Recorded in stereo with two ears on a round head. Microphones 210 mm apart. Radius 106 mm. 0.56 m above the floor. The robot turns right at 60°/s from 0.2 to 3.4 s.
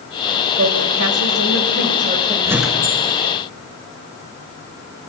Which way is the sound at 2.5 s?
15° right.